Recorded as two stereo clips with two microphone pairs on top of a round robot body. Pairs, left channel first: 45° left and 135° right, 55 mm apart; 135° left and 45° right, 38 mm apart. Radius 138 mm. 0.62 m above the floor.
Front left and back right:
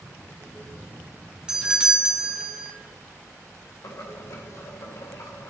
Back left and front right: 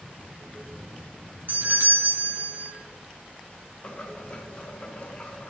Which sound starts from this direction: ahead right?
A doorbell, at 1.5 s.